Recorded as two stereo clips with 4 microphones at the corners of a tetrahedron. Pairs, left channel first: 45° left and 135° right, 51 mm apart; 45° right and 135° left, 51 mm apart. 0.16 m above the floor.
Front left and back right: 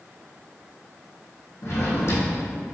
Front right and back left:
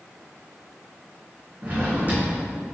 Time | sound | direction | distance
1.6 | a drawer | 80° left | 2.5 m